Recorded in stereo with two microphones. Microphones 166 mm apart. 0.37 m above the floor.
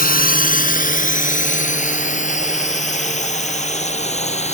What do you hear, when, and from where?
0.0 s a drone: 60° left (ahead or behind); by 4.5 s 40° left (ahead or behind)